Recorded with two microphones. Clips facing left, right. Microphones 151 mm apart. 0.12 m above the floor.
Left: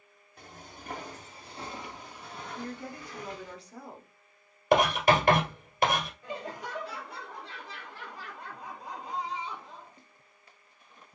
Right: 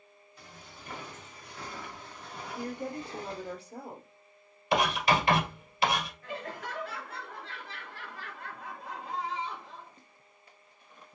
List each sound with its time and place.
0.4 s footsteps: 50° left (ahead or behind), 1.9 m; by 3.5 s 45° right (ahead or behind), 1.2 m
2.5 s a woman speaking: 50° right (ahead or behind), 1.8 m
4.7 s writing: 50° left (ahead or behind), 2 m
6.2 s laughter: 15° left (ahead or behind), 2 m